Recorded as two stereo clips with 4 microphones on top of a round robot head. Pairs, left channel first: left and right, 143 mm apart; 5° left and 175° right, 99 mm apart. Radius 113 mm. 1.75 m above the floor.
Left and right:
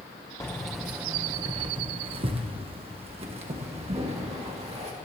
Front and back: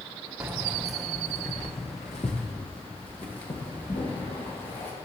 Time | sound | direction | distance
0.4 | keys jangling | 150° left | 0.6 m